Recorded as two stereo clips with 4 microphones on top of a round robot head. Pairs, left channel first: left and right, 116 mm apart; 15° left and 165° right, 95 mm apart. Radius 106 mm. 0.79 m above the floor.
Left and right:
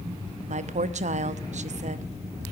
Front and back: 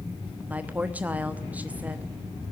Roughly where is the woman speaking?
Right.